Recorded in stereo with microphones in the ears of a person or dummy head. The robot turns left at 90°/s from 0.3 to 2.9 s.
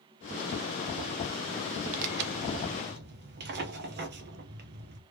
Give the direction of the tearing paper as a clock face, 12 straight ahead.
1 o'clock.